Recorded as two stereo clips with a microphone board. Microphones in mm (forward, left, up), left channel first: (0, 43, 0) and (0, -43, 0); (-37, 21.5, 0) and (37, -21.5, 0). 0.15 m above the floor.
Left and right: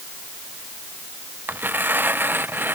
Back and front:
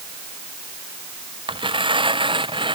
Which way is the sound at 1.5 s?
20° right.